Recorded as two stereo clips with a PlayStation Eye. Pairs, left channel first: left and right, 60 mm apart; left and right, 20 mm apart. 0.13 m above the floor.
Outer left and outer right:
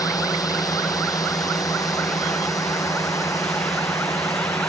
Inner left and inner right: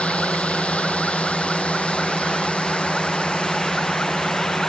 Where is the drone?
70° left (ahead or behind); by 4.7 s 55° left (ahead or behind).